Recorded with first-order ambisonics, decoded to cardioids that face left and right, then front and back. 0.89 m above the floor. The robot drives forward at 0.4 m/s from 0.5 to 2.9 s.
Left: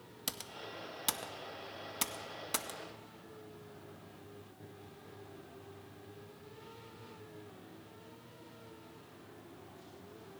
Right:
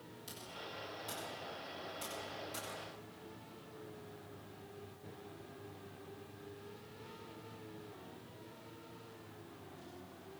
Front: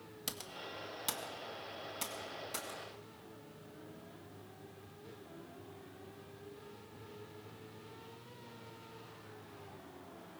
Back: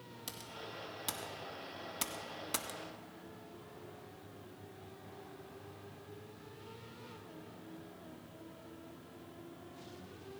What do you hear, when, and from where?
0.3 s typing on a keyboard: 70° left, 0.9 m; by 2.8 s 125° left, 1.1 m